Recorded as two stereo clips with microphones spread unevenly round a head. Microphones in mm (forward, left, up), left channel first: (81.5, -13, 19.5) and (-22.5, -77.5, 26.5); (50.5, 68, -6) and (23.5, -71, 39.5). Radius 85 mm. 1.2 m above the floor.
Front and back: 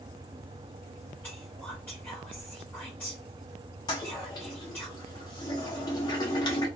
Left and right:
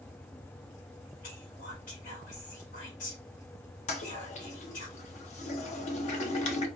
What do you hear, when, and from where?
1.2 s whispering: 110° left, 1.6 m
3.9 s a toilet flushing: 90° left, 0.6 m